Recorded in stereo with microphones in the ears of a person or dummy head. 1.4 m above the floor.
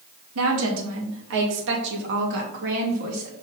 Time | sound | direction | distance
0.3 | a woman speaking | 85° right | 2 m